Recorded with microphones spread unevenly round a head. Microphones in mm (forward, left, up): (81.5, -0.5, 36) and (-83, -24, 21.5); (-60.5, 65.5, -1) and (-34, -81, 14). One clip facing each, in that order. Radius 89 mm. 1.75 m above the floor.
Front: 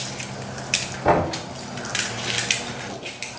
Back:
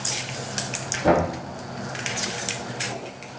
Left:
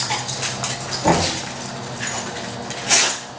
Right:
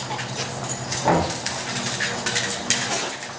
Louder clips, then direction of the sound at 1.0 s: Even, left 2 dB; 160° left.